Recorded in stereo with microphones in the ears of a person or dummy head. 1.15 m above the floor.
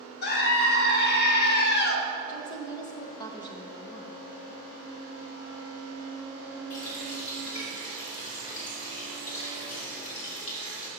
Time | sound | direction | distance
0.2 | a scream | 50° left (ahead or behind) | 1.0 m
2.3 | a woman speaking | 20° left (ahead or behind) | 0.9 m
4.8 | a flute | 20° left (ahead or behind) | 0.8 m
6.7 | a running tap | 45° left (ahead or behind) | 2.5 m